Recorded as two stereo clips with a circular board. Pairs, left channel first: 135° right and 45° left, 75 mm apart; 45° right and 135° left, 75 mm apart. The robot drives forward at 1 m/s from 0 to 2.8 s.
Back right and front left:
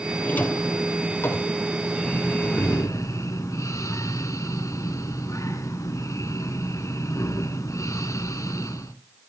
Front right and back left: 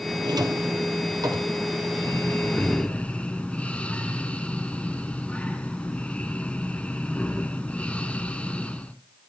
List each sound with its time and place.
0.2 s a drawer: 155° left, 1.3 m; by 1.6 s 170° left, 2.5 m
2.0 s breathing: 65° right, 1.3 m; by 8.9 s 115° right, 1.3 m